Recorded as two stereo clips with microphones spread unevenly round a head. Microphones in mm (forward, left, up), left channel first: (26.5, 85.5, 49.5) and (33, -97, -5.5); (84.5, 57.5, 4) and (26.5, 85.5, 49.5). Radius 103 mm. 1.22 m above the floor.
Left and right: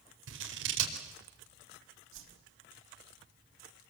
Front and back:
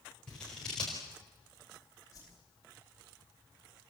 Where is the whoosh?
90° right, 4.5 m.